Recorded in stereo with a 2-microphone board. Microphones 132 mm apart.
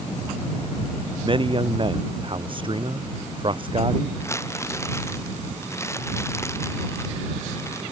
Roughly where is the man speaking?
Right.